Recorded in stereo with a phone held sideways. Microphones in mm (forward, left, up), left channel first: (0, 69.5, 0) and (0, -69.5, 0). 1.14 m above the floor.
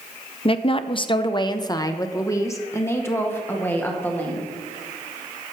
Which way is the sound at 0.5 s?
40° left (ahead or behind).